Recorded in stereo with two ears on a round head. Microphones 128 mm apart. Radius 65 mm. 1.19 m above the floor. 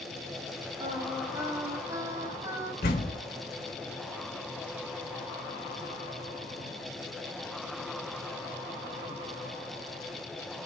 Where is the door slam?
75° left (ahead or behind), 4 m.